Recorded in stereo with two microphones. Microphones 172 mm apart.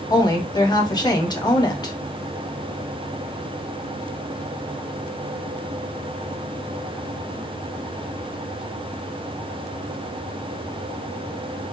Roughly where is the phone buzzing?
No phone buzzing in this recording.